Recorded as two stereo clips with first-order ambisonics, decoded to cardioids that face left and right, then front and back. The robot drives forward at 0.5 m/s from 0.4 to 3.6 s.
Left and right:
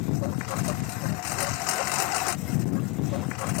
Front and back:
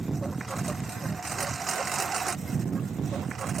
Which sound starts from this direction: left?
A lawn mower, at 0.0 s.